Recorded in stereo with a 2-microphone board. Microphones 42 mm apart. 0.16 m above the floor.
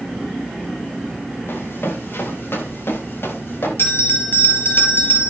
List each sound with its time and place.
1.5 s running footsteps: 60° left (ahead or behind), 8 m; by 3.7 s 65° left (ahead or behind), 10 m
3.8 s a bell: 65° left (ahead or behind), 3.5 m